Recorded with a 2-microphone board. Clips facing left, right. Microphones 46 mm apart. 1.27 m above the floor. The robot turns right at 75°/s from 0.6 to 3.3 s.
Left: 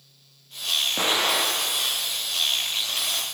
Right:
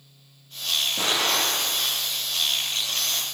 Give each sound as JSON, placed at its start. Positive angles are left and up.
{"t": 1.0, "sound": "an explosion", "azimuth_deg": 145, "distance_m": 1.9}